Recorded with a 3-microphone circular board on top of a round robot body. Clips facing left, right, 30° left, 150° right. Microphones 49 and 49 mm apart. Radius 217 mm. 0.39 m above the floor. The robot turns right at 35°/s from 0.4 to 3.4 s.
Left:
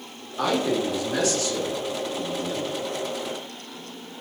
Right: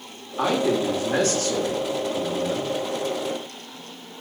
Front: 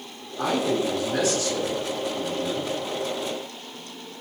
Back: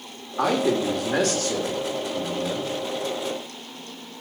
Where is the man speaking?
160° right, 2.5 m; by 2.7 s 80° right, 2.5 m.